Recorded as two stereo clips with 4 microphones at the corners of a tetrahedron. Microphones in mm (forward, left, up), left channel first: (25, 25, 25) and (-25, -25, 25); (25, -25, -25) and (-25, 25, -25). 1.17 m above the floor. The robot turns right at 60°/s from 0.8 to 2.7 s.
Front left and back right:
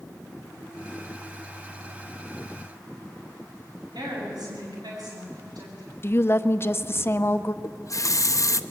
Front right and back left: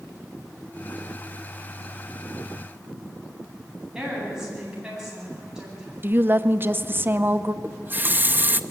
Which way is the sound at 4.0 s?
145° right.